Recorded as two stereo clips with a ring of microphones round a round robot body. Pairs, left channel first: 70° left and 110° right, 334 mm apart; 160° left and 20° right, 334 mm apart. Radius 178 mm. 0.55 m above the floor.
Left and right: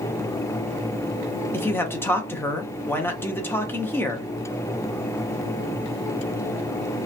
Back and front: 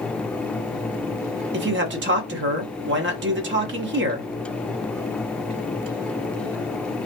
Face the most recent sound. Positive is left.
turn(degrees=-10)